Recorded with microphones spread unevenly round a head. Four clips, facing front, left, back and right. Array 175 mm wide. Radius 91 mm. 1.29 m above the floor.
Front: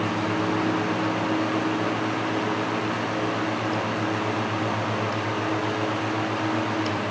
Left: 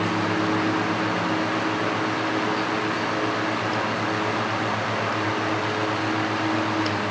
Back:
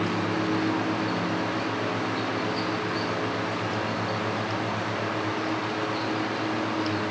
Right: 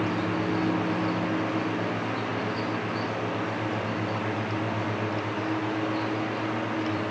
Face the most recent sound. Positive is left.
No sound to turn to.